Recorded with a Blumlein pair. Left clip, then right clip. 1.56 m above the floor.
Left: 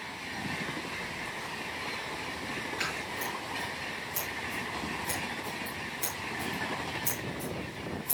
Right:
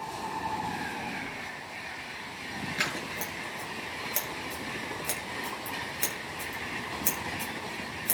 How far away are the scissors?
About 8 m.